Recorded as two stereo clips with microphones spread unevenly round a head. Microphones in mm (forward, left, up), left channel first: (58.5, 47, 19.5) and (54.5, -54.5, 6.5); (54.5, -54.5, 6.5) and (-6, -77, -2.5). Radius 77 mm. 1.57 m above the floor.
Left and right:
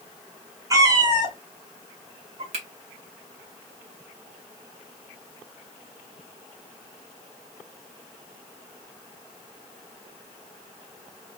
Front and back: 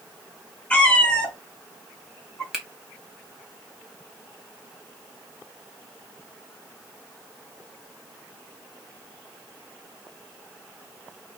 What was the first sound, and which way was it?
A cat meowing, 40° right.